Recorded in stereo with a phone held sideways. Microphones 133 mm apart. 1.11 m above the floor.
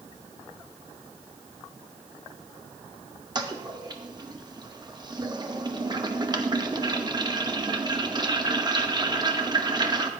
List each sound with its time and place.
3.4 s a toilet flushing: 35° right (ahead or behind), 1.0 m